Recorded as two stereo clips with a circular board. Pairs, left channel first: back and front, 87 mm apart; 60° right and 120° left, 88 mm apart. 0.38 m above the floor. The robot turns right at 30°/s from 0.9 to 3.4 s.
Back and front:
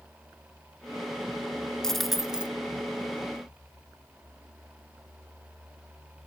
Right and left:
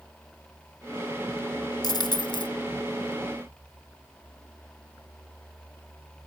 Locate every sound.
1.8 s a dropped coin: 95° right, 0.9 m; by 2.5 s 75° right, 0.9 m